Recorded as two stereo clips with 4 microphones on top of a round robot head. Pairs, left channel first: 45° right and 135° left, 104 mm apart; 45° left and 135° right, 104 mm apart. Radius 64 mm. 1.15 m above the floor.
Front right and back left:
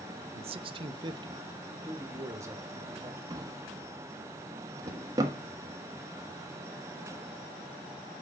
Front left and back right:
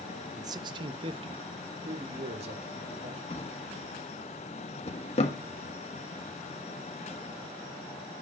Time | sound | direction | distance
0.4 | a man speaking | 165° left | 0.6 m
3.3 | a drawer | 75° left | 1.2 m